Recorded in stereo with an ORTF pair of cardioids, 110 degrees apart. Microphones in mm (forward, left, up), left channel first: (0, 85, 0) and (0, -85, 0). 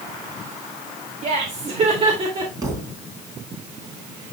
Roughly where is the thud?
Ahead.